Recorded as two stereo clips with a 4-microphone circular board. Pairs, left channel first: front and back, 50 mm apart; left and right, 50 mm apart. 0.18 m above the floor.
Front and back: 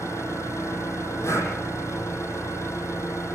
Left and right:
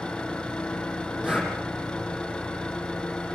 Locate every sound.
0.0 s an engine running: 15° left, 5.5 m
1.2 s breathing: 15° right, 6.5 m